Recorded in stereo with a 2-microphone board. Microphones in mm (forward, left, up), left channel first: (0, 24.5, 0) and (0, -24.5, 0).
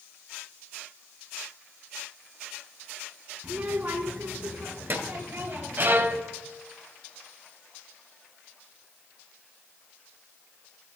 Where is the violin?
45° right (ahead or behind), 0.8 m.